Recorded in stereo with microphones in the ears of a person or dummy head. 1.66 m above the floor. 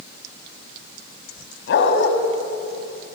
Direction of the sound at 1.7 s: 65° left (ahead or behind).